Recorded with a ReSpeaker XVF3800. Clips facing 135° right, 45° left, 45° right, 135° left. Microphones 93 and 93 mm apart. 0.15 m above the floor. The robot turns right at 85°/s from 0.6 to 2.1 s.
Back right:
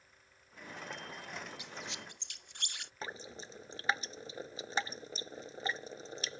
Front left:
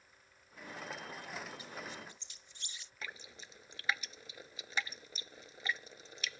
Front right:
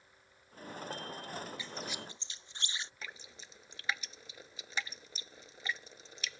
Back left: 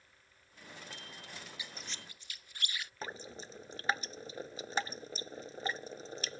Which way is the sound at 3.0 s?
175° left.